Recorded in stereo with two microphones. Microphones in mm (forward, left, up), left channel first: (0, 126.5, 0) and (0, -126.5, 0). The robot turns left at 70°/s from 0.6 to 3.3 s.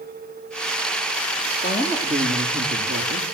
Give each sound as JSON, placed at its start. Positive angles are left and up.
{"t": 1.6, "sound": "a woman speaking", "azimuth_deg": 40, "distance_m": 6.0}